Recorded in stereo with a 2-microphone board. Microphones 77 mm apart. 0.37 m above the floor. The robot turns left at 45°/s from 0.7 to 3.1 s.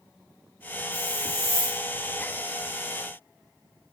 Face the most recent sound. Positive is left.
turn(degrees=65)